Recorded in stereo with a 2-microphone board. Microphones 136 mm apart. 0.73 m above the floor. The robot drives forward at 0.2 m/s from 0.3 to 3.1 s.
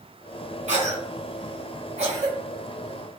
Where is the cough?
60° right (ahead or behind), 2 m; by 2.4 s 50° right (ahead or behind), 2 m.